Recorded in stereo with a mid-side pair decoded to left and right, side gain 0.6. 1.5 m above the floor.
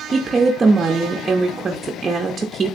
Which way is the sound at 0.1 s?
30° right.